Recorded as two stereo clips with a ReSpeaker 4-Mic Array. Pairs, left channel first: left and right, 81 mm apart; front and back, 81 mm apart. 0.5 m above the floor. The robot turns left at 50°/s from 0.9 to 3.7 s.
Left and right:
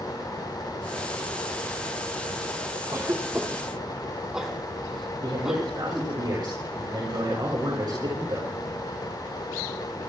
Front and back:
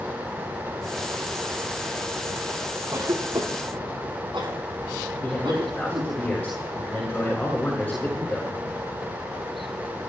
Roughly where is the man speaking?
Right.